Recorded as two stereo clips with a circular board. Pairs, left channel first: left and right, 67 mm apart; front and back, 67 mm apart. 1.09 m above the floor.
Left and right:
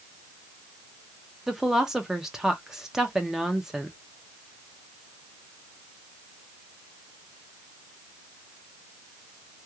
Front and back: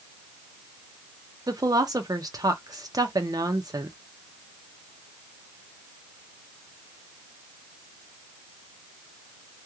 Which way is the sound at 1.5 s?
175° right.